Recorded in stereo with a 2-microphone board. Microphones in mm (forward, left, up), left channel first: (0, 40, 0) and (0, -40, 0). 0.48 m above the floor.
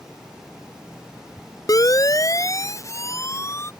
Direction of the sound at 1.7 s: 45° left (ahead or behind).